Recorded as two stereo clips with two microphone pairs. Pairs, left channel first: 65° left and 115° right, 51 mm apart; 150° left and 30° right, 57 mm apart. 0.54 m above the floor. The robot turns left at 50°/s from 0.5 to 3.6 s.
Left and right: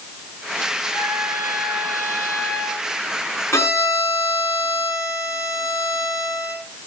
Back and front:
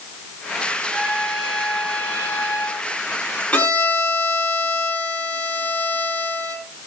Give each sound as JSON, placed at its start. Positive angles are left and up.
{"t": 0.9, "sound": "a trumpet", "azimuth_deg": -100, "distance_m": 10.0}
{"t": 3.5, "sound": "a violin", "azimuth_deg": 85, "distance_m": 6.0}